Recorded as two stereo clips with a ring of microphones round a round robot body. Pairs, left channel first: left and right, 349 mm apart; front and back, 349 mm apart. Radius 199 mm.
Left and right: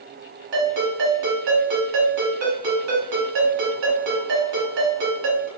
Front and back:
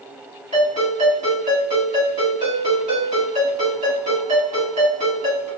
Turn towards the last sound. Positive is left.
turn(degrees=-105)